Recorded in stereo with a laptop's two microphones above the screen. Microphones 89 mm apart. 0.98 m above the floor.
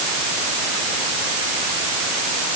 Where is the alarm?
No alarm in this recording.